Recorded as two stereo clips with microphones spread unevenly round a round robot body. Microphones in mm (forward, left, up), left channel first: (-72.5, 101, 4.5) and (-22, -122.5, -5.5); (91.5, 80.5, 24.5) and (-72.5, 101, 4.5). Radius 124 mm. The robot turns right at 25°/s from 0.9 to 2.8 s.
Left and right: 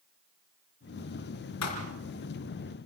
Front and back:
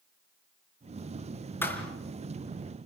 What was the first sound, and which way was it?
A thud, 70° left.